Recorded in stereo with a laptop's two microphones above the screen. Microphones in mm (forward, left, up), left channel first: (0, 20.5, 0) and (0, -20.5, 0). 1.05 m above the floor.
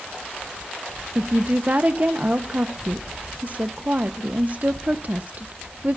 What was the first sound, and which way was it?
A woman speaking, 40° right (ahead or behind).